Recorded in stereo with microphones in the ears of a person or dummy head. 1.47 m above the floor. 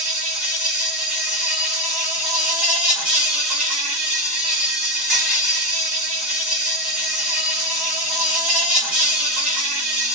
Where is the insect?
5° right (ahead or behind), 1.0 m.